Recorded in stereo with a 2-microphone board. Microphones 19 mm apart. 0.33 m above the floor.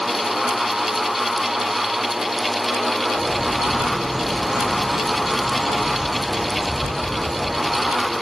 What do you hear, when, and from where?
3.1 s a bird: 65° right (ahead or behind), 5.5 m